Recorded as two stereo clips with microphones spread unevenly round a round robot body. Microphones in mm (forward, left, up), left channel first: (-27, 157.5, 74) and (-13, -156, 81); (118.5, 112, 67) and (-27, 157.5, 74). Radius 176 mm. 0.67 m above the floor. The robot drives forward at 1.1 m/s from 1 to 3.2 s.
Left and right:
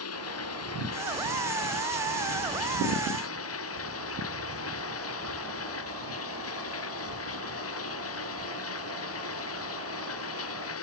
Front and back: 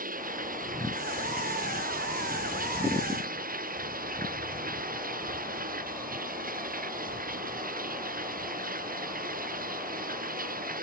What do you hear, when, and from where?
0.0 s running water: 135° left; by 10.8 s 140° left